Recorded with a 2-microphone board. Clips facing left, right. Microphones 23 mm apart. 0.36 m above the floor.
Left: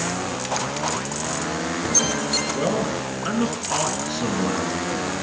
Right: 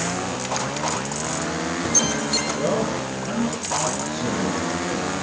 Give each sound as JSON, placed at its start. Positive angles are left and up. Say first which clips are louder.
{"t": 2.5, "sound": "a man speaking", "louder": "even", "side_deg": 70, "distance_m": 6.0}